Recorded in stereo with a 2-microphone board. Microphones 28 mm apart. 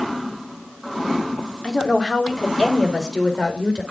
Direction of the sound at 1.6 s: 30° left (ahead or behind).